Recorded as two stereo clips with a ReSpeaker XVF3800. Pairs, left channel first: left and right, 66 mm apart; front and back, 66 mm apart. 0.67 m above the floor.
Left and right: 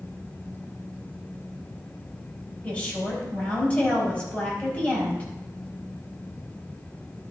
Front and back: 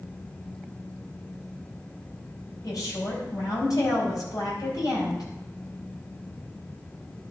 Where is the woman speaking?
25° left, 4 m.